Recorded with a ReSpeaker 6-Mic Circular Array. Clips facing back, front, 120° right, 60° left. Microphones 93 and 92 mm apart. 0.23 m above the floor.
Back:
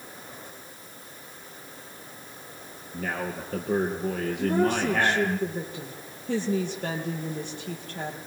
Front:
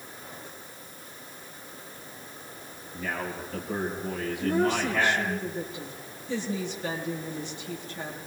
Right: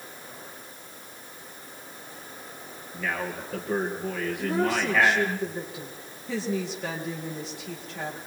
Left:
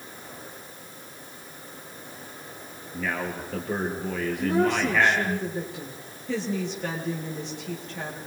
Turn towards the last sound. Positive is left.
turn(degrees=150)